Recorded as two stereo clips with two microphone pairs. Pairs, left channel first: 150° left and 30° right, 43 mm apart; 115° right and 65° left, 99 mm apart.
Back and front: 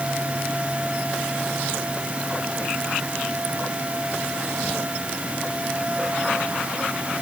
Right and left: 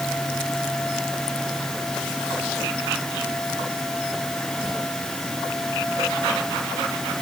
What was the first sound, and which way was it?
Only background noise.